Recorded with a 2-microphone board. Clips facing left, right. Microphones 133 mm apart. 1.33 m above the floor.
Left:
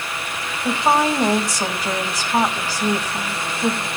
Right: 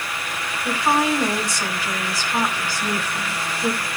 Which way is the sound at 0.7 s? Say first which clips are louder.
Left 2 dB; 45° left (ahead or behind).